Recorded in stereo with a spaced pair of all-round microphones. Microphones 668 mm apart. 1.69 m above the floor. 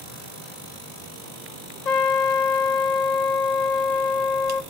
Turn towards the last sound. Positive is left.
turn(degrees=80)